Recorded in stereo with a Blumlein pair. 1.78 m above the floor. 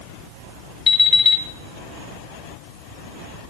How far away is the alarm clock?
About 7.5 m.